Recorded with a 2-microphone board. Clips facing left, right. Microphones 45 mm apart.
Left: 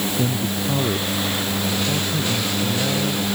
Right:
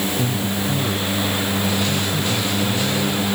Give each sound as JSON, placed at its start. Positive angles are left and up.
{"t": 0.2, "sound": "a man speaking", "side_deg": 50}